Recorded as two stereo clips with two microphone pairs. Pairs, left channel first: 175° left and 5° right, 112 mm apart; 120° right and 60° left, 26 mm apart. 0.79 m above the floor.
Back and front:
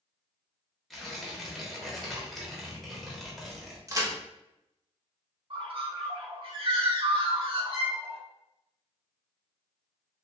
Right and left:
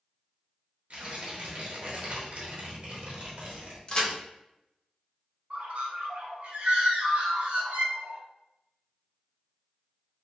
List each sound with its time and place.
0.9 s tearing paper: 85° left, 0.7 m
3.9 s a crack: 70° right, 0.6 m
5.5 s a bird: 25° left, 0.6 m